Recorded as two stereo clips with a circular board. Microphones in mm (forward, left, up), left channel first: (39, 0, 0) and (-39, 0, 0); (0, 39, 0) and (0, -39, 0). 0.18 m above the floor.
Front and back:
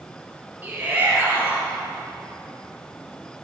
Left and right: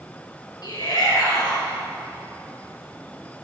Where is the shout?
115° left, 4 m.